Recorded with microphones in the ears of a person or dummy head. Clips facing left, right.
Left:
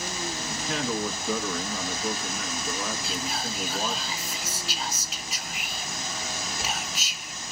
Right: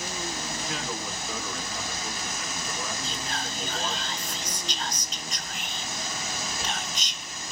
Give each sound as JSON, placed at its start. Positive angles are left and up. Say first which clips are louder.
{"t": 0.5, "sound": "a man speaking", "louder": "left 4 dB", "side_deg": 50, "distance_m": 1.8}
{"t": 3.0, "sound": "whispering", "louder": "left 2 dB", "side_deg": 5, "distance_m": 0.7}